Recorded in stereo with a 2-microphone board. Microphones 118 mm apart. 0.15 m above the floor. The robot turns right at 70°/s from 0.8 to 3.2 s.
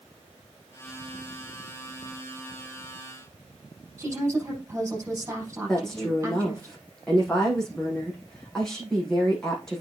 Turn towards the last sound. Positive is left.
turn(degrees=5)  # may be behind; listen again after turning